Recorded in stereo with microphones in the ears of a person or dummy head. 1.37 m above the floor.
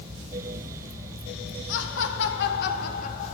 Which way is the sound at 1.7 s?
75° left (ahead or behind).